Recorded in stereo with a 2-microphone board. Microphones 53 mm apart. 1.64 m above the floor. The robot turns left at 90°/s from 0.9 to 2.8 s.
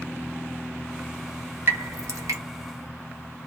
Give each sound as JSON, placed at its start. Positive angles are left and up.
{"t": 1.7, "sound": "dripping", "side_deg": -45, "distance_m": 1.0}